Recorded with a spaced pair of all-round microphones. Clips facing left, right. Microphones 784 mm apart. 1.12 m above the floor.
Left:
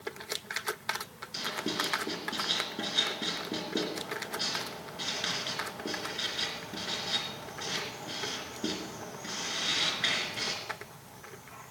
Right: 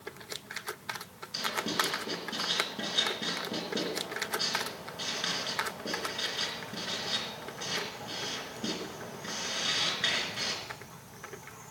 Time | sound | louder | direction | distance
1.3 | writing | even | 15° right (ahead or behind) | 3 m